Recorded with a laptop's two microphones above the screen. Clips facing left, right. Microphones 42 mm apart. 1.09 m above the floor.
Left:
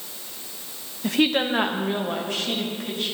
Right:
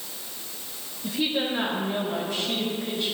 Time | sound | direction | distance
1.0 | a woman speaking | 65° left (ahead or behind) | 0.6 m